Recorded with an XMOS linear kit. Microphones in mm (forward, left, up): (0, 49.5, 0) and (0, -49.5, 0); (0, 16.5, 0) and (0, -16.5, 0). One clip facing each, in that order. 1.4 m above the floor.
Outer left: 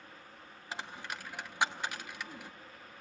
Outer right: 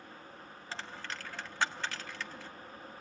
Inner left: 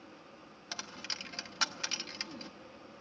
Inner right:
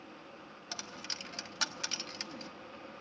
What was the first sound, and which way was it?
A dropped coin, 15° left (ahead or behind).